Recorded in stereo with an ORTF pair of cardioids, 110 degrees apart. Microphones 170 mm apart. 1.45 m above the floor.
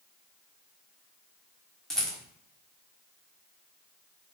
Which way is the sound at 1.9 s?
5° left.